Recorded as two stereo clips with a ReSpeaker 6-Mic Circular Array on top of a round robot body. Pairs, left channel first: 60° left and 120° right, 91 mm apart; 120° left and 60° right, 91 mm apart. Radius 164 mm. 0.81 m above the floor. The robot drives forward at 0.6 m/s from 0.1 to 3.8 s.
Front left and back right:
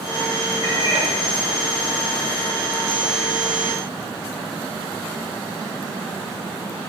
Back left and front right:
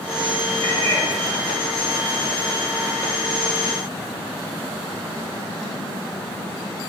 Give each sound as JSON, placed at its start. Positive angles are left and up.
{"t": 0.6, "sound": "a cat meowing", "azimuth_deg": -170, "distance_m": 5.5}